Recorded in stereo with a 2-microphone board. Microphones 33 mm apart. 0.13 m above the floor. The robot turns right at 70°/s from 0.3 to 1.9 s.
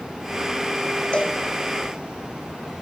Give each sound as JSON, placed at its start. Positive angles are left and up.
{"t": 1.1, "sound": "a cowbell", "side_deg": 35, "distance_m": 2.5}